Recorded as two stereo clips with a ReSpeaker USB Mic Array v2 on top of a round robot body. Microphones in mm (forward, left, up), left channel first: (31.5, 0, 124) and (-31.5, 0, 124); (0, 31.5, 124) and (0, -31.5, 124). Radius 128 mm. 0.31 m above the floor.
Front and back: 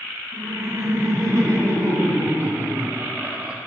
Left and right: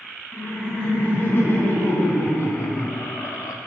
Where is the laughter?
155° left, 3 m; by 3.6 s 110° left, 1.5 m.